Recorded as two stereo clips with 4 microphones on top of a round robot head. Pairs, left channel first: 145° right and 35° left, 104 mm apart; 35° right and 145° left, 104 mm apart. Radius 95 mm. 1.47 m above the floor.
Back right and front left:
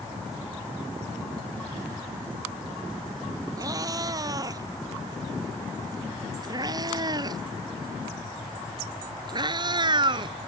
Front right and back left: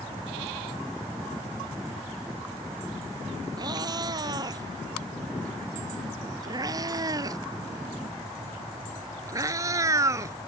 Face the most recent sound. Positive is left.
turn(degrees=85)